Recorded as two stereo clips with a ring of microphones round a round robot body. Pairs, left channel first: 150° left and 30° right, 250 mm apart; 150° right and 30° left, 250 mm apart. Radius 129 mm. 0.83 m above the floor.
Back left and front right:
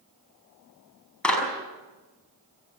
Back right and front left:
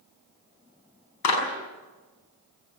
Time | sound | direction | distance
1.2 | a clap | 125° right | 5.5 m